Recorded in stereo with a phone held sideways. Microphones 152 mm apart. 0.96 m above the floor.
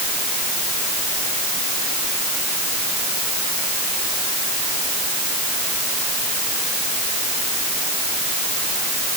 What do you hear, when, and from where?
Only background noise.